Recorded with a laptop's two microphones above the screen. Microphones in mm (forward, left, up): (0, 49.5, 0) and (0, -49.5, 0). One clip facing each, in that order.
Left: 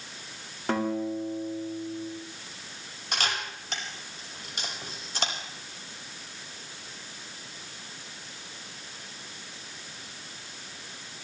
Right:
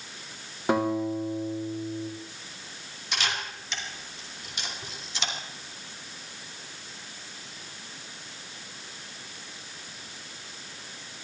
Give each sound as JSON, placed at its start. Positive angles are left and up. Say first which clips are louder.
{"t": 0.7, "sound": "a guitar", "louder": "right 3 dB", "side_deg": -15, "distance_m": 2.0}
{"t": 3.1, "sound": "a camera shutter", "louder": "even", "side_deg": 45, "distance_m": 5.0}